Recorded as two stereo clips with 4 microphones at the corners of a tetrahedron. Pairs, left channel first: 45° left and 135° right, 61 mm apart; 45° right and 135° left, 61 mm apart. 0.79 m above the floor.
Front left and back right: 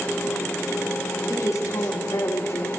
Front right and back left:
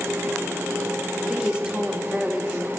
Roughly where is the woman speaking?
Ahead left.